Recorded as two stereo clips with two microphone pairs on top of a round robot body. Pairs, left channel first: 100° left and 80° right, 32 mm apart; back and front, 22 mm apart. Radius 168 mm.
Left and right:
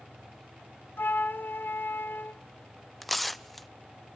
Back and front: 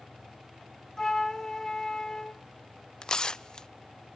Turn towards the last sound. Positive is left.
turn(degrees=175)